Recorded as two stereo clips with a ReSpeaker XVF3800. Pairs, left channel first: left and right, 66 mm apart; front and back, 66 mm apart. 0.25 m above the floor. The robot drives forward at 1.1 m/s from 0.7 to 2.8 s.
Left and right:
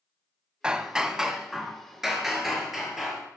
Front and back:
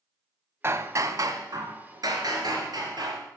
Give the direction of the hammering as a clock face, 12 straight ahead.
5 o'clock.